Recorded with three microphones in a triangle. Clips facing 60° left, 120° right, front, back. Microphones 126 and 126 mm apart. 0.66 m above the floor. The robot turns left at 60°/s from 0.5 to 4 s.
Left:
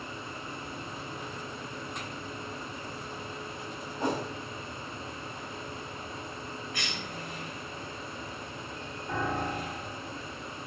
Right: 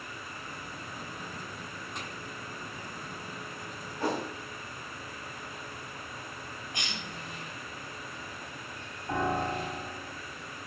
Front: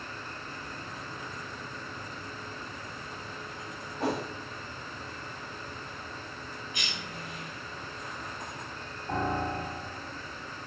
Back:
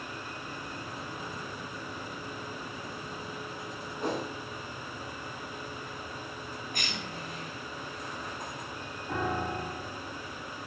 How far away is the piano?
About 1.7 m.